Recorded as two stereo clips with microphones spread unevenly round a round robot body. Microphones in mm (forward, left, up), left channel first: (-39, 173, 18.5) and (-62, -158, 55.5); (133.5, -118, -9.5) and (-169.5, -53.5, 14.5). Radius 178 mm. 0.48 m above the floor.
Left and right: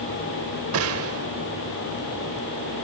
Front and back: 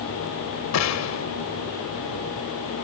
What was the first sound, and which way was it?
A gunshot, 40° right.